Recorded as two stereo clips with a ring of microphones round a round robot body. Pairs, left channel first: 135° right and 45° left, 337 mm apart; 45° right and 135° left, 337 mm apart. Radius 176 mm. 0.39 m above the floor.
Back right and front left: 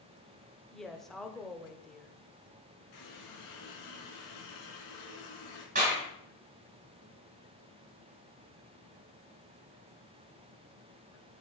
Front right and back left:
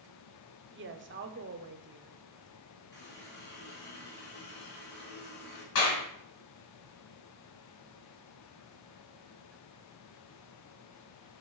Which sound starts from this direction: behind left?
A woman speaking, at 0.7 s.